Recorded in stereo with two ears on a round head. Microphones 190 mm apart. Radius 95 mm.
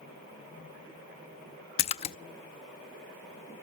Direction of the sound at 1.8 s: 30° left (ahead or behind).